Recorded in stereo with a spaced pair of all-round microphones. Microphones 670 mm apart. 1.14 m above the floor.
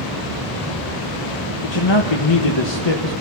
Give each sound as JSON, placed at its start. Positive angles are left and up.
{"t": 1.6, "sound": "a man speaking", "side_deg": 40, "distance_m": 1.3}